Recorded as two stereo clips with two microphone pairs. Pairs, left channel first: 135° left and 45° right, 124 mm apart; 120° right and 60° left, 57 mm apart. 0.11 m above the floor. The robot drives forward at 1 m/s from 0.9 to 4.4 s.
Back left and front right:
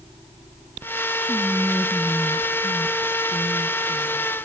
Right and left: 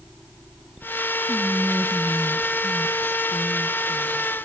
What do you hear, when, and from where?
1.3 s whispering: 15° left, 1.4 m; by 4.3 s 175° left, 2.5 m